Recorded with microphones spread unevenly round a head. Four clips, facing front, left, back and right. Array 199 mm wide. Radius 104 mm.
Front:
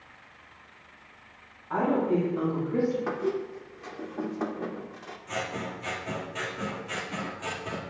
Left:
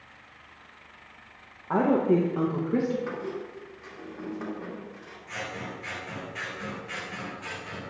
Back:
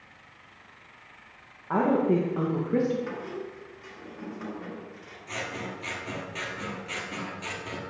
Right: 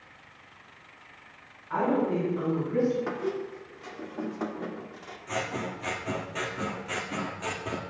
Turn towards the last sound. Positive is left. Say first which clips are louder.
# right 5 dB, front 2 dB
turn(degrees=-80)